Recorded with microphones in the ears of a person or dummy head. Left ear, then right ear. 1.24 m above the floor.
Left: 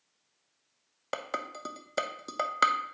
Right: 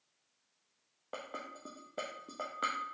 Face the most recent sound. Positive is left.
turn(degrees=70)  # may be behind; listen again after turning